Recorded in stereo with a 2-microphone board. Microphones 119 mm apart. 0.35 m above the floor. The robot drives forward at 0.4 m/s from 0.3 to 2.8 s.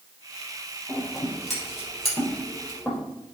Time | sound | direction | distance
0.9 | scissors | centre (ahead or behind) | 3.5 m